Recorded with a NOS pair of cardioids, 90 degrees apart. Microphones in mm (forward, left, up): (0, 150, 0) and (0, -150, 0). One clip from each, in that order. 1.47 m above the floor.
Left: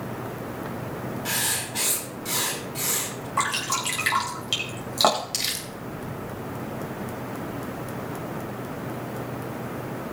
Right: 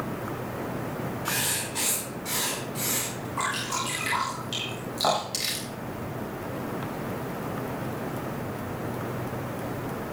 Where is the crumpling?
25° left, 3.5 m.